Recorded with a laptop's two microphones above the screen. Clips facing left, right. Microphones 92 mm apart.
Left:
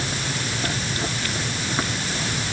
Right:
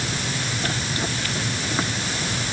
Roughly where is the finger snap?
No finger snap in this recording.